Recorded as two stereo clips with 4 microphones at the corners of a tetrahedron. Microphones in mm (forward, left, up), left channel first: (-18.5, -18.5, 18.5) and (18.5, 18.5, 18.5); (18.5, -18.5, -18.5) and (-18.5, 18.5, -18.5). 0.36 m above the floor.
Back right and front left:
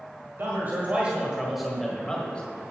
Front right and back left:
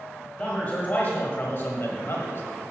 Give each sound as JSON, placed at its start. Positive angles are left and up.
{"t": 0.4, "sound": "a man speaking", "azimuth_deg": 15, "distance_m": 1.7}